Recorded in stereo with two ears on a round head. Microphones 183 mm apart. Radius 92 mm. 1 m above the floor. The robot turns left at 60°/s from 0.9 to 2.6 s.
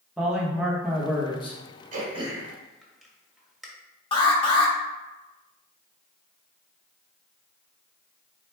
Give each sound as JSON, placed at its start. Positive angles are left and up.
{"t": 0.2, "sound": "a man speaking", "azimuth_deg": -175, "distance_m": 1.0}
{"t": 1.9, "sound": "throat clearing", "side_deg": -40, "distance_m": 0.9}
{"t": 4.1, "sound": "an alarm", "side_deg": 25, "distance_m": 0.8}